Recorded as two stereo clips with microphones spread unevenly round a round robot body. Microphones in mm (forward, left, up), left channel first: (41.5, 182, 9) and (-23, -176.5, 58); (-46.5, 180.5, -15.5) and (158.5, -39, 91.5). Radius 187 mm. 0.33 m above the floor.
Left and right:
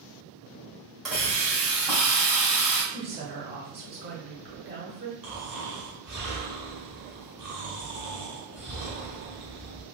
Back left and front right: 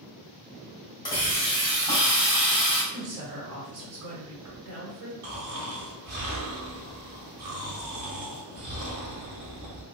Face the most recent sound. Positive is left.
turn(degrees=-15)